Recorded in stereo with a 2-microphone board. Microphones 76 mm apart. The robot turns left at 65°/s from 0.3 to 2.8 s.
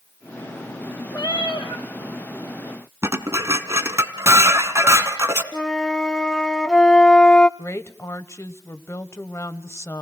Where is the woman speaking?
40° left (ahead or behind), 1.1 m.